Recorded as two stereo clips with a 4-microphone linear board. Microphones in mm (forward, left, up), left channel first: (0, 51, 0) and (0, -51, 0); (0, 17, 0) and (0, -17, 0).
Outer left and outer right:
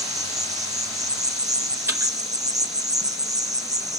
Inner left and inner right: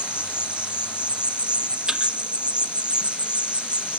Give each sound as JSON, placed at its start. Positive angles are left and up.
{"t": 0.0, "sound": "an insect", "side_deg": -35, "distance_m": 0.9}
{"t": 1.9, "sound": "a thud", "side_deg": -20, "distance_m": 5.5}